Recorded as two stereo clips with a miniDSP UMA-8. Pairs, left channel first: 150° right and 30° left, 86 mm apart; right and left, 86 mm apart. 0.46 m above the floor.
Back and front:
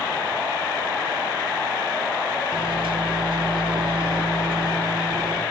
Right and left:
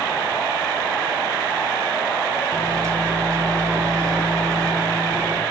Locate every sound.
2.5 s a microwave: 40° left, 6 m